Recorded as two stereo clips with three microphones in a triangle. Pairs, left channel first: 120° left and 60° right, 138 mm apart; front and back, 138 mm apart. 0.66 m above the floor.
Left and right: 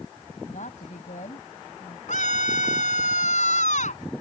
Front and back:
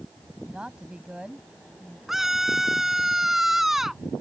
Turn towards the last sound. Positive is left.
turn(degrees=90)